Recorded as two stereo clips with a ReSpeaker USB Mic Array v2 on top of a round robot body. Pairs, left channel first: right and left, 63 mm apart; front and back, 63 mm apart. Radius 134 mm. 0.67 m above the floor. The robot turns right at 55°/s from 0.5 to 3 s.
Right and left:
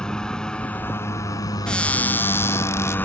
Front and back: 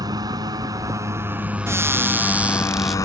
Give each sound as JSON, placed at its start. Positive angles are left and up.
{"t": 0.0, "sound": "a motorcycle", "azimuth_deg": -170}
{"t": 1.7, "sound": "a cupboard door", "azimuth_deg": -160}